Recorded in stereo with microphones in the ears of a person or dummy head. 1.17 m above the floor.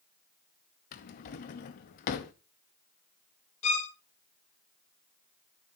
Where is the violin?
35° left (ahead or behind), 1.4 m.